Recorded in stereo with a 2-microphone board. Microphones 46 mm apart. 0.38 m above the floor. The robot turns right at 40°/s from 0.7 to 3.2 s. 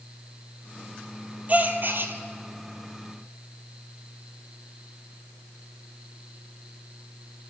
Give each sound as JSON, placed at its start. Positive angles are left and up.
{"t": 1.5, "sound": "a gasp", "side_deg": -35, "distance_m": 1.7}